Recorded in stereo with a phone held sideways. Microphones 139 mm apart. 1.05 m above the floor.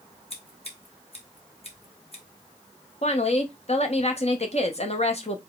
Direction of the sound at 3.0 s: 50° left (ahead or behind).